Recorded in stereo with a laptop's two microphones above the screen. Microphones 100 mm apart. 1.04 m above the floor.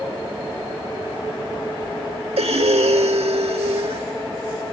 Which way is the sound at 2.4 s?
85° right.